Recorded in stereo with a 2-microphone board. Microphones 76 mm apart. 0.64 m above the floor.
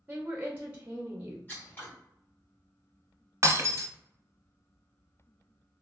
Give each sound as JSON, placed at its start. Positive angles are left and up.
{"t": 0.1, "sound": "a woman speaking", "side_deg": -15, "distance_m": 0.6}
{"t": 1.5, "sound": "scissors", "side_deg": 25, "distance_m": 1.3}
{"t": 3.4, "sound": "breaking glass", "side_deg": -40, "distance_m": 0.6}